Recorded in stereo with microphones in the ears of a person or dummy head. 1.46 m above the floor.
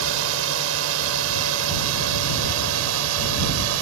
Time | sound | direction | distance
0.0 | a drone | 65° right (ahead or behind) | ?